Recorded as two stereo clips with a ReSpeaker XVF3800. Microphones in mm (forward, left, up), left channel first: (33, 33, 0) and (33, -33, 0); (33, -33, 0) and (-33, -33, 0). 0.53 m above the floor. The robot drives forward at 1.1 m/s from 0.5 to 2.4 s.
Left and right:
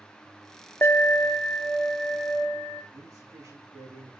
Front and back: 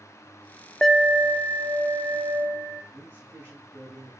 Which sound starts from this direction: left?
An alarm, at 0.8 s.